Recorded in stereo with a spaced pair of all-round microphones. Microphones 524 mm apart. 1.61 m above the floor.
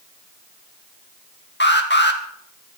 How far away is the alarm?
About 2 m.